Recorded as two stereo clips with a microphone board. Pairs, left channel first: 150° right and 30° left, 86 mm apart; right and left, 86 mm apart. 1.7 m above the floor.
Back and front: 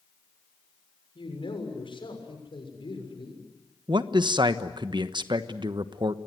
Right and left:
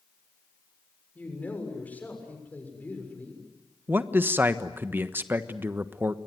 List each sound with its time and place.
1.1 s a man speaking: 160° right, 6.5 m
3.9 s a man speaking: 30° left, 1.2 m